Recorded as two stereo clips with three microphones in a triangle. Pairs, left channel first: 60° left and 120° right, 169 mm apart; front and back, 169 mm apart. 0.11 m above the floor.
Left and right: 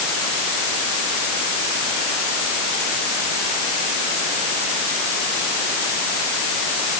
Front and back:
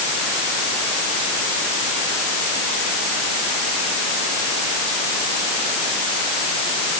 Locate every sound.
Only background noise.